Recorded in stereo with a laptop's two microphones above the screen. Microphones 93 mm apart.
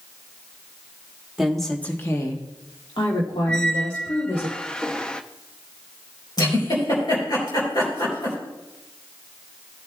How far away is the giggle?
About 4 m.